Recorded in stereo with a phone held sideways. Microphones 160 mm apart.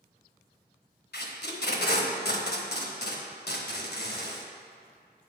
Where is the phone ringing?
I don't hear a phone ringing.